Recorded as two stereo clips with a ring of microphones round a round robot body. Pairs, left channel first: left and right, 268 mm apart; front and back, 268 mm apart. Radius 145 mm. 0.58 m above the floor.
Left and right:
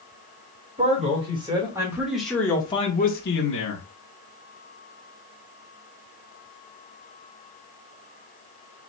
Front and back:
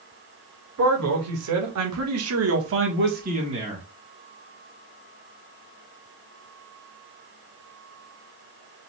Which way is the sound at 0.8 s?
155° right.